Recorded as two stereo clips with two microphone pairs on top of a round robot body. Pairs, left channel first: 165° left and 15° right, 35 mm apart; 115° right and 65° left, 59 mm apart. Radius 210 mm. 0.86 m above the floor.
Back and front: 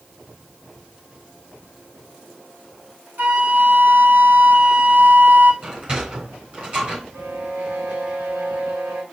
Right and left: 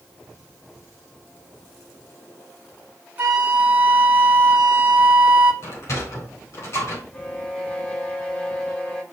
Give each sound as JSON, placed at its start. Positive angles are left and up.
{"t": 3.2, "sound": "a flute", "azimuth_deg": 5, "distance_m": 2.5}
{"t": 5.6, "sound": "a sliding door", "azimuth_deg": -75, "distance_m": 3.5}
{"t": 7.1, "sound": "a violin", "azimuth_deg": -45, "distance_m": 2.0}